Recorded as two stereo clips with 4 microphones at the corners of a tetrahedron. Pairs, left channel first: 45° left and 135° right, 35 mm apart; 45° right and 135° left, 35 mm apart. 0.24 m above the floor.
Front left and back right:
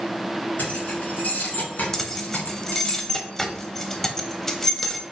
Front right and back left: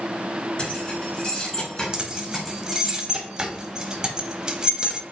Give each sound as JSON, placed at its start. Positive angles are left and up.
{"t": 0.6, "sound": "keys jangling", "azimuth_deg": 15, "distance_m": 2.5}
{"t": 1.9, "sound": "keys jangling", "azimuth_deg": 115, "distance_m": 0.6}